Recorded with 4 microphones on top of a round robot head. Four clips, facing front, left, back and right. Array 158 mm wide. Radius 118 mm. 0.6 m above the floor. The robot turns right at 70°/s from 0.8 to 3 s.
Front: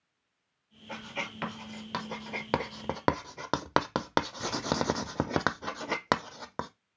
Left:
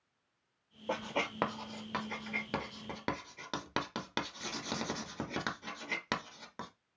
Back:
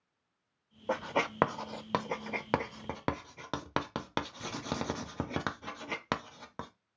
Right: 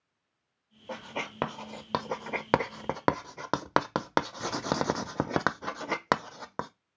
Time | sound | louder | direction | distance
0.9 | writing | left 2 dB, back 8 dB | 160° left | 0.5 m